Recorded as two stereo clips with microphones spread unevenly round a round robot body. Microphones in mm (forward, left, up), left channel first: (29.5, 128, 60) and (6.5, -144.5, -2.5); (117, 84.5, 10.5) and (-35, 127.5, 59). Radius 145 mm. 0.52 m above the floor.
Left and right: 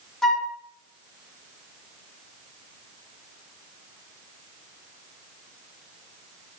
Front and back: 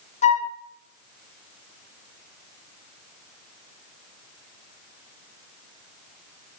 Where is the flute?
10° right, 0.8 m.